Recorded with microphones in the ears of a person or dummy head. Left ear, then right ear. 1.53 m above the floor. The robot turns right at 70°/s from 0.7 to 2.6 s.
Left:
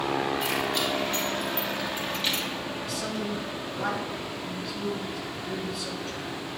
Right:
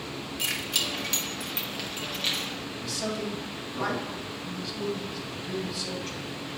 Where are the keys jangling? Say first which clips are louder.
Left 2 dB; 65° right (ahead or behind), 1.6 m; by 2.5 s 15° left (ahead or behind), 1.6 m.